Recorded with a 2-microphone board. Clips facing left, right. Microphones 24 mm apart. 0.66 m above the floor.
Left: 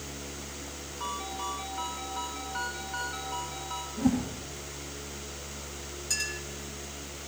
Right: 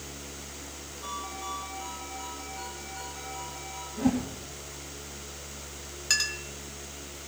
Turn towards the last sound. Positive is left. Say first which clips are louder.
# right 5 dB
turn(degrees=-45)  # may be behind; listen again after turning